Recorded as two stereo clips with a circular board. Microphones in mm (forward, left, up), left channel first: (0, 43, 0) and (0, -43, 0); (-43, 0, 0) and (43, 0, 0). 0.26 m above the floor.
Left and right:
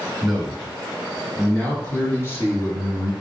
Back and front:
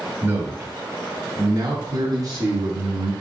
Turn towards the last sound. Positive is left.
turn(degrees=35)